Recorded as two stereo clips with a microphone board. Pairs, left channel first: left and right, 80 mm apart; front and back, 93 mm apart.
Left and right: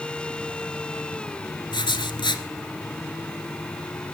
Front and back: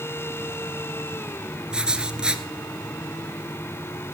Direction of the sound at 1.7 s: 100° left.